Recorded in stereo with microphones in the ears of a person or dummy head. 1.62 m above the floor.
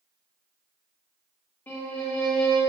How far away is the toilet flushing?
No toilet flushing in this recording.